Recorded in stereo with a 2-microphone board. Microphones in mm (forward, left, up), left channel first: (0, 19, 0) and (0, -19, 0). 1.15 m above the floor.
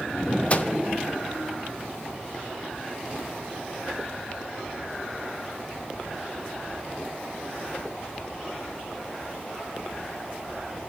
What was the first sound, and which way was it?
A microwave, 35° left (ahead or behind).